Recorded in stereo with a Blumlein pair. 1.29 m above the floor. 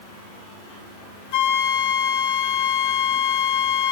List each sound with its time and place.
1.3 s a flute: 55° left, 1.0 m